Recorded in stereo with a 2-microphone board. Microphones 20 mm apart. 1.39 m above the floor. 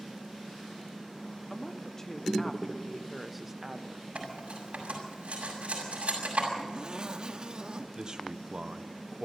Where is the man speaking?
40° right (ahead or behind), 1.0 m.